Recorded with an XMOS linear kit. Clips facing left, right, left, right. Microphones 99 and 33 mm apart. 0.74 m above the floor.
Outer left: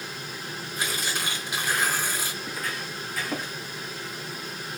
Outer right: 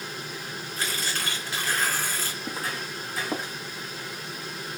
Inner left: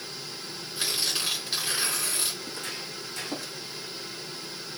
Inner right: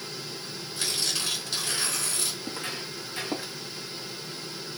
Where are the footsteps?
35° right (ahead or behind), 3 m; by 3.5 s 25° right (ahead or behind), 3.5 m.